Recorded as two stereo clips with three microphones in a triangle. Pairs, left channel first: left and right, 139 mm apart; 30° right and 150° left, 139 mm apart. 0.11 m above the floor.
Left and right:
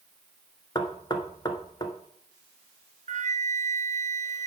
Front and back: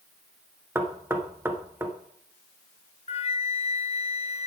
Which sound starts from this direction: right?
A flute, at 3.1 s.